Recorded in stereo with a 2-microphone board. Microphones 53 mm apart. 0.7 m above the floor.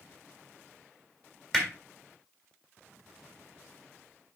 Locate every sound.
1.5 s hammering: 10° left (ahead or behind), 1.7 m